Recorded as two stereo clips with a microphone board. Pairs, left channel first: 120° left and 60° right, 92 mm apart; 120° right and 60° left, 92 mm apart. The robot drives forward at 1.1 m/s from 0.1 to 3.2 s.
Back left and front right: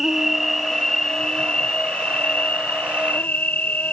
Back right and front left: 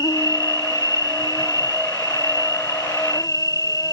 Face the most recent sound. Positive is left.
turn(degrees=-165)